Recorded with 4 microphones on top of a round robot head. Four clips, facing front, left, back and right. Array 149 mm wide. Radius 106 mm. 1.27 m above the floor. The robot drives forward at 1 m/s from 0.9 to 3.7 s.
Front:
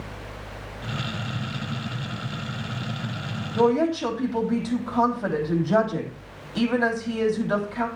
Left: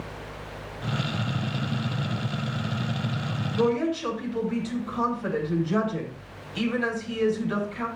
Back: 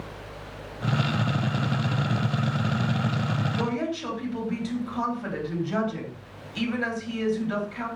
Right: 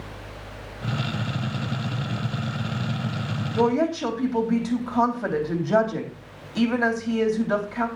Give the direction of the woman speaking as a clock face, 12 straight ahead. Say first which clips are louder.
Right 3 dB, front 13 dB; 2 o'clock.